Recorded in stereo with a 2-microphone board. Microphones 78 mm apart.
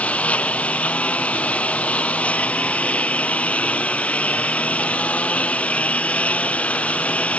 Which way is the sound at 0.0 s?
20° left (ahead or behind).